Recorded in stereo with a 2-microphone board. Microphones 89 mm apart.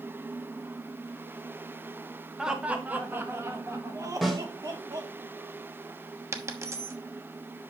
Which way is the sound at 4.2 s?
Centre (ahead or behind).